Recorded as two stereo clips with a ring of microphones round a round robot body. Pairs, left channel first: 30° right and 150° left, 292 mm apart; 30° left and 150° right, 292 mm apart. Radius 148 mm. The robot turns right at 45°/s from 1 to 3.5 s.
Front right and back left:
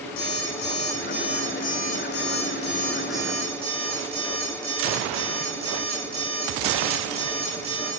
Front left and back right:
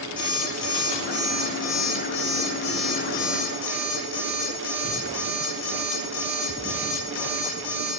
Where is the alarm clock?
35° right, 4 m; by 7.9 s 80° left, 4 m.